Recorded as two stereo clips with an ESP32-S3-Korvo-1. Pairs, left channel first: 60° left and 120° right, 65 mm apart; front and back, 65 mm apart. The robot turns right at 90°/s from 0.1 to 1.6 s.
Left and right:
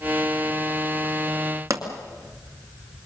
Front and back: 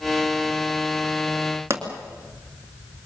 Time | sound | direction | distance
1.7 | a pop | 140° right | 2 m